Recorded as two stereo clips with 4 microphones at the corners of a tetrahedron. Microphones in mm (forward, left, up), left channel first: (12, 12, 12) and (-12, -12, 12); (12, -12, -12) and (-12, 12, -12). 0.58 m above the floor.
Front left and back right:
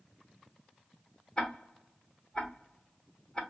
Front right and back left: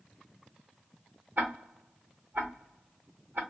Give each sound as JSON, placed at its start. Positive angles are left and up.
{"t": 1.4, "sound": "ticking", "azimuth_deg": 110, "distance_m": 1.2}